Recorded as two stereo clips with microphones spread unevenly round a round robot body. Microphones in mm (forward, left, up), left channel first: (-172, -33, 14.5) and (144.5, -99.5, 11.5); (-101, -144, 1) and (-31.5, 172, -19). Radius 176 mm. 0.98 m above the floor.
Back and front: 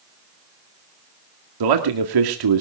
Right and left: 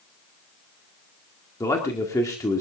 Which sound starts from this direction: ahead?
A man speaking, at 1.6 s.